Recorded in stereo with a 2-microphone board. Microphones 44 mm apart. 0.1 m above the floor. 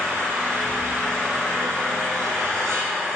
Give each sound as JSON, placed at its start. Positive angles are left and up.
{"t": 0.0, "sound": "an engine running", "side_deg": -60, "distance_m": 2.5}